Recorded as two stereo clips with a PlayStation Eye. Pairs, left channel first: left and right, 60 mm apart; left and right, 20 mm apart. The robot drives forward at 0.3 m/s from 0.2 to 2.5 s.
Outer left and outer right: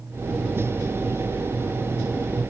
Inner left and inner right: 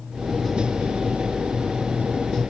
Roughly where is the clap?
No clap in this recording.